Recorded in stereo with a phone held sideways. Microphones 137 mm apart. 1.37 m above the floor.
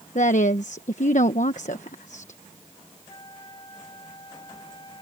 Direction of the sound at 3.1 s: 35° left (ahead or behind).